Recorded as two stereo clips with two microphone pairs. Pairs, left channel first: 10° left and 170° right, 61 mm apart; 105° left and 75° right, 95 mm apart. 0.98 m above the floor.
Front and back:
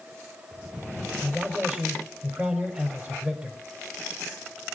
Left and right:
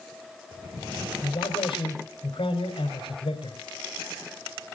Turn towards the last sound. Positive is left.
turn(degrees=130)